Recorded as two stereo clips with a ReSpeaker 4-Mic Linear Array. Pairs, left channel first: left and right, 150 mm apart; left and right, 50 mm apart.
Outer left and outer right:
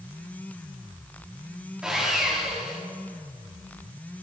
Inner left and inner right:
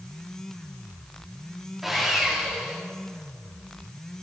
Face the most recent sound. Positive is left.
turn(degrees=-5)  # may be behind; listen again after turning